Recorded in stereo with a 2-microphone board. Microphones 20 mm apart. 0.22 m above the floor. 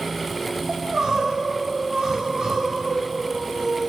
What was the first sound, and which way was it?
Crying, 40° right (ahead or behind).